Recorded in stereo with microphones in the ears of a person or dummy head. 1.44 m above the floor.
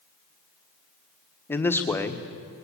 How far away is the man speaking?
About 1.2 m.